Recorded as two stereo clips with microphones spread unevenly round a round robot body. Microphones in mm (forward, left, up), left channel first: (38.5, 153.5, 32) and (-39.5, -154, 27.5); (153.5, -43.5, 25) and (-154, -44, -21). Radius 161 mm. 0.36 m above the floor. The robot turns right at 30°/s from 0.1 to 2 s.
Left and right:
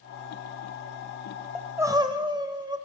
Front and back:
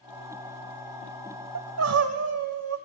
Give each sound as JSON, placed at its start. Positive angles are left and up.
{"t": 1.6, "sound": "crying", "azimuth_deg": 170, "distance_m": 0.9}